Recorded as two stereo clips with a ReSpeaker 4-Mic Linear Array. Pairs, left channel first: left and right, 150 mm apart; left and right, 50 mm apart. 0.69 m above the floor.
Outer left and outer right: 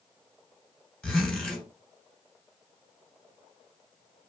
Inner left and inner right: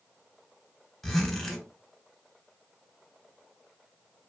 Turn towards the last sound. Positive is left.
turn(degrees=5)  # may be behind; listen again after turning